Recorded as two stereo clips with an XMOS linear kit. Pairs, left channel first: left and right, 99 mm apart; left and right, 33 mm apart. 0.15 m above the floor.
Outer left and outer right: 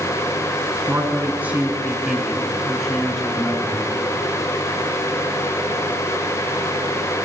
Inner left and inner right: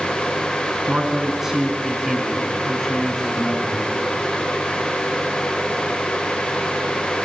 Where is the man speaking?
20° right (ahead or behind), 1.4 m; by 3.9 s 5° left (ahead or behind), 2.5 m.